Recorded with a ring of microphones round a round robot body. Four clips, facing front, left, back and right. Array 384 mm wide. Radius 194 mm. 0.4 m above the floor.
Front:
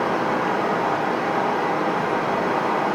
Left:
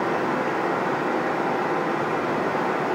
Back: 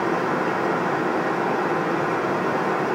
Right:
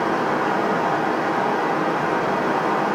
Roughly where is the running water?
Ahead right.